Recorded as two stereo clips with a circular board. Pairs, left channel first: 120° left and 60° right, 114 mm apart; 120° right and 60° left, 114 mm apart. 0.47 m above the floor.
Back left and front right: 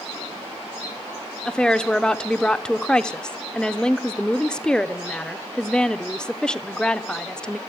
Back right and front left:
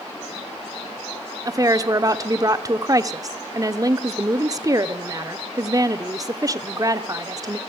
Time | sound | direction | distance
1.4 | a woman speaking | 45° left | 0.7 m